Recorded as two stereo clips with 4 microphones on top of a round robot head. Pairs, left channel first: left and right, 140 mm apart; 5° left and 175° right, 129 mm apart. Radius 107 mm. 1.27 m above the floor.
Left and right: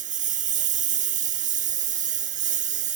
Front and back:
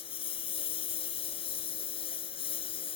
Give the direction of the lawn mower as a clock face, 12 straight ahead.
2 o'clock.